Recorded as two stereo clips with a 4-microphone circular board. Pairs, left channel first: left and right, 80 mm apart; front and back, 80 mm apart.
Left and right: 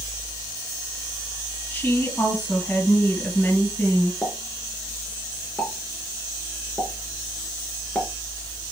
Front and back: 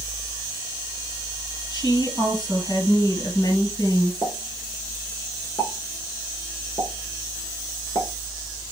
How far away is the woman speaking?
About 3 m.